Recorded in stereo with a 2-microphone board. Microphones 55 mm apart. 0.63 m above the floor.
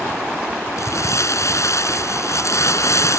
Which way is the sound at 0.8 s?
70° left (ahead or behind).